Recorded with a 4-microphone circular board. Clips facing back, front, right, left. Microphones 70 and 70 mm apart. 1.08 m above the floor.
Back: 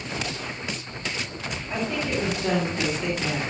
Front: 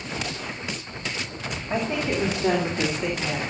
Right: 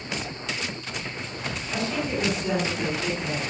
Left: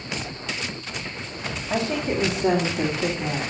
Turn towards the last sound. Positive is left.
turn(degrees=95)